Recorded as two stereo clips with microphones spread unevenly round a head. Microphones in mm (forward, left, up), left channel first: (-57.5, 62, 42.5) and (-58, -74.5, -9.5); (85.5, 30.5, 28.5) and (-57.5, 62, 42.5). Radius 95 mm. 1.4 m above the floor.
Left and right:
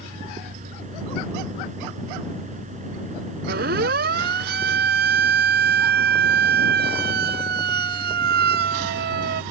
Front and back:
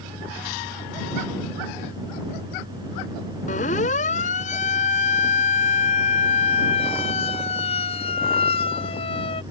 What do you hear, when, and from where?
0.0 s a fan: 125° right
3.5 s a siren: 65° right; by 9.4 s 75° right